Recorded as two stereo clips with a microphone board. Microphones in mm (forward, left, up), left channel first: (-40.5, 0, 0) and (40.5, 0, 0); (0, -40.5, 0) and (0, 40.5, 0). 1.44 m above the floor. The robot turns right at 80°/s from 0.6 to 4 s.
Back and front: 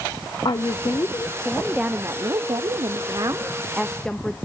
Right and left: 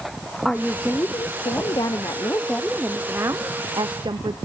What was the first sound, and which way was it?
A woman speaking, 175° right.